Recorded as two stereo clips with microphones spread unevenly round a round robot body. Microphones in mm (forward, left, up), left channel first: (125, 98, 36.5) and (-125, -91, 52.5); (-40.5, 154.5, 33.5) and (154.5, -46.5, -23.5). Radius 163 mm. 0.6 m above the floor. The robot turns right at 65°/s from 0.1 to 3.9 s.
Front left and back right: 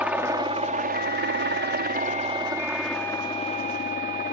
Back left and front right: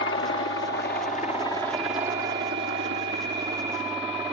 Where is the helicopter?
130° left; by 4.3 s 20° left.